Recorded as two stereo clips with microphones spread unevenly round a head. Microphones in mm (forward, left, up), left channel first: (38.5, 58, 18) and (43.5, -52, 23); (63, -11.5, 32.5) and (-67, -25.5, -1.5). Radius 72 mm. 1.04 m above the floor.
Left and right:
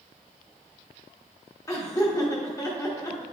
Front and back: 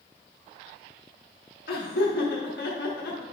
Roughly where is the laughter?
Ahead left.